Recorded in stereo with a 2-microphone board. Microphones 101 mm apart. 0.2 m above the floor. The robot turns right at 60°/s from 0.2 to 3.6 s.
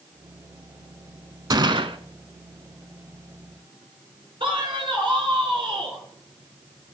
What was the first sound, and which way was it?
A gunshot, 40° right (ahead or behind).